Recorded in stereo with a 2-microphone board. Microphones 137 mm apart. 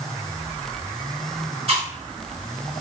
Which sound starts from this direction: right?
Chewing, at 1.7 s.